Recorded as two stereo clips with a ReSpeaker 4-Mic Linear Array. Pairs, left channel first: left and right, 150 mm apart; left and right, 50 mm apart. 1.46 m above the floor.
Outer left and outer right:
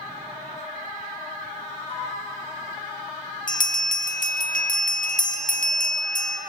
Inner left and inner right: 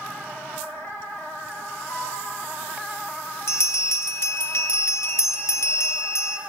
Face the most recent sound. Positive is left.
turn(degrees=65)  # may be behind; listen again after turning